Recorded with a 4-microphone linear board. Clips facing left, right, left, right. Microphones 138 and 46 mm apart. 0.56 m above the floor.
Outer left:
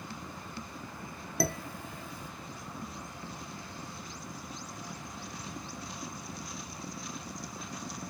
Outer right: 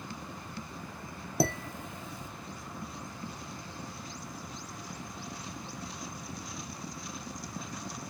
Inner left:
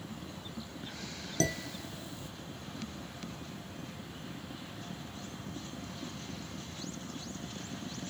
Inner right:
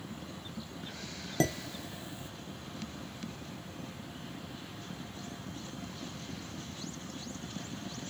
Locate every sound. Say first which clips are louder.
1.4 s dishes clattering: outer right 3 dB, inner right 2 dB; 20° right (ahead or behind), 0.6 m